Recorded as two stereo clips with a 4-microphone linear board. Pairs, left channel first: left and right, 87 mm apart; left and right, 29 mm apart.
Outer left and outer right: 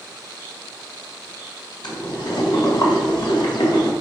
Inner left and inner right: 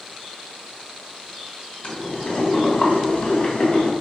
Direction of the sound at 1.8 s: 60° left (ahead or behind).